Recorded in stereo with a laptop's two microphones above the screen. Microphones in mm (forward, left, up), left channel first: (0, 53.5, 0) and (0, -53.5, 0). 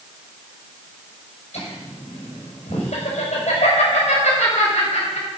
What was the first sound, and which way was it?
Laughter, 70° left (ahead or behind).